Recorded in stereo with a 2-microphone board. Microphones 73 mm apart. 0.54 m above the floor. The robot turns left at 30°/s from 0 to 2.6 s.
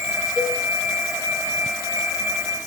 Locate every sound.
0.4 s a cowbell: 10° right (ahead or behind), 1.2 m; by 0.6 s 5° right (ahead or behind), 1.2 m